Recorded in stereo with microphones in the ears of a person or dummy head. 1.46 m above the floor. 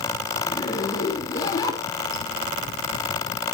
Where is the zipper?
20° left (ahead or behind), 2.5 m.